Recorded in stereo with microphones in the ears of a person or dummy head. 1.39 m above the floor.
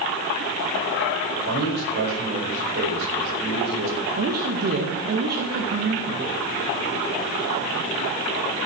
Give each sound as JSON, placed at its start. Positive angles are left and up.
{"t": 1.3, "sound": "a man speaking", "side_deg": -70, "distance_m": 5.0}
{"t": 4.2, "sound": "a woman speaking", "side_deg": -50, "distance_m": 1.8}